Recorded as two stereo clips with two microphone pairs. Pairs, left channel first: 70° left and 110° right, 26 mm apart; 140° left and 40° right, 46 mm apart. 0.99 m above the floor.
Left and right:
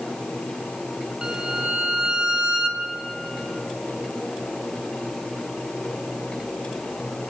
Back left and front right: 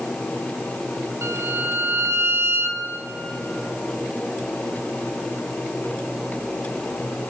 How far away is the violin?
About 0.8 m.